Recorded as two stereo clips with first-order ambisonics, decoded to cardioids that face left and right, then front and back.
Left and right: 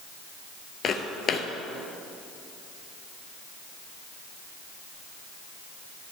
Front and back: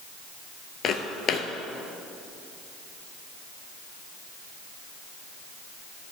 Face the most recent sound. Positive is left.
turn(degrees=40)